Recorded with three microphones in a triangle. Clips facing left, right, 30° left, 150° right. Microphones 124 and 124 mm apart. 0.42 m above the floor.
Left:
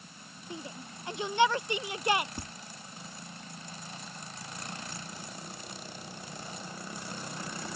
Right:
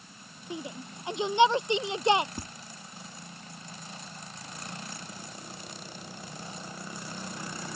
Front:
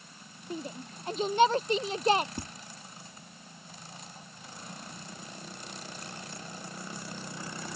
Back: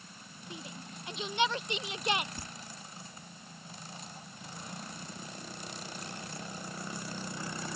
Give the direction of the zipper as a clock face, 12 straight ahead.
I don't hear a zipper.